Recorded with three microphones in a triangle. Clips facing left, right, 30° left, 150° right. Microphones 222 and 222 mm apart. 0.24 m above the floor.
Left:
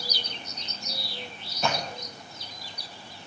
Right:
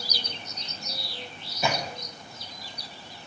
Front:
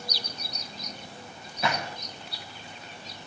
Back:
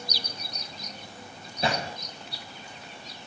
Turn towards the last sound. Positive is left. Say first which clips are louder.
# right 1 dB, back 2 dB
turn(degrees=-165)